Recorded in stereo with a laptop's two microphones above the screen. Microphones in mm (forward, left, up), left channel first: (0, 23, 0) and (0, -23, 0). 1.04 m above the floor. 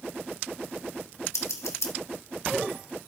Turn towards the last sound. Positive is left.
turn(degrees=75)  # may be behind; listen again after turning